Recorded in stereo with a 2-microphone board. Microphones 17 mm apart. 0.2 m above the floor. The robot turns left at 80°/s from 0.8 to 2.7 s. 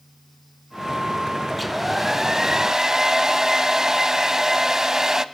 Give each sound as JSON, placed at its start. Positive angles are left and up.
{"t": 1.5, "sound": "a hair dryer", "side_deg": 5, "distance_m": 0.7}